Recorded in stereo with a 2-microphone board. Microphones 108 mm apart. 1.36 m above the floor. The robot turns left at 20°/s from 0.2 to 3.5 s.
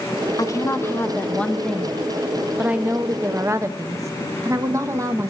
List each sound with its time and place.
0.4 s a woman speaking: 35° left, 0.6 m; by 5.3 s 30° right, 0.6 m